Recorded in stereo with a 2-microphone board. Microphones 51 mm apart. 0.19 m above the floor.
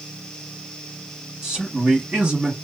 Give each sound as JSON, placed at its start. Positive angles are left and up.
{"t": 1.4, "sound": "a man speaking", "side_deg": -15, "distance_m": 1.2}